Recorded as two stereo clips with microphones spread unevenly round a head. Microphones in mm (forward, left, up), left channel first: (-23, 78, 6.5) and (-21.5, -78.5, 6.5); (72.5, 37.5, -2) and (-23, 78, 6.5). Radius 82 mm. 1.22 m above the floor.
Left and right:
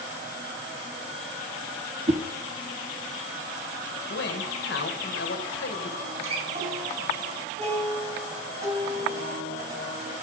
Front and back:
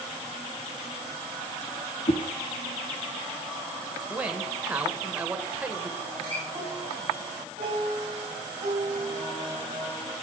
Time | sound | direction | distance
2.1 | a whoosh | 35° right | 0.7 m
4.1 | a man speaking | 80° left | 1.5 m
6.0 | a guitar | 135° right | 3 m